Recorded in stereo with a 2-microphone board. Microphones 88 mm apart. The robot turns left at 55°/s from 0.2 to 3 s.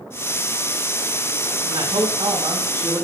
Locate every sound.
1.6 s a man speaking: 80° right, 6 m; by 3.1 s 155° right, 6 m